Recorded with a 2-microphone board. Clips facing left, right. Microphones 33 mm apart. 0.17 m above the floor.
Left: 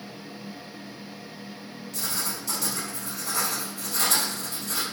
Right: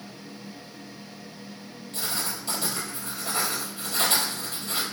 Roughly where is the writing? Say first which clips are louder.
Right 1 dB; right.